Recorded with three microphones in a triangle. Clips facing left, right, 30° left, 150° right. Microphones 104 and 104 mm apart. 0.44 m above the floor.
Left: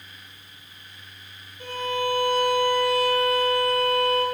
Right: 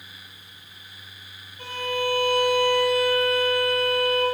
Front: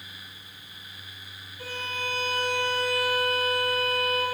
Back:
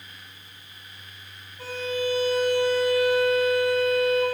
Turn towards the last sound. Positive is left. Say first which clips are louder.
# even, back 7 dB
turn(degrees=-85)